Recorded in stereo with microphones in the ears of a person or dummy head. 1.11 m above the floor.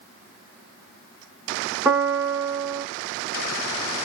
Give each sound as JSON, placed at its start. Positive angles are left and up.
{"t": 1.9, "sound": "a piano", "side_deg": -10, "distance_m": 0.8}